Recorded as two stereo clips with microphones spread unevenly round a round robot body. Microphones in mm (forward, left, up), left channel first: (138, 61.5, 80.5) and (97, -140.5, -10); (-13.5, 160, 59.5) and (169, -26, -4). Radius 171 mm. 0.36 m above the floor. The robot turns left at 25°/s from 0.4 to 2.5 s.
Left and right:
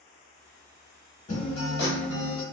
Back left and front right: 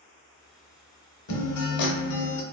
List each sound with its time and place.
1.3 s a guitar: 150° left, 0.7 m; by 2.4 s 125° left, 0.7 m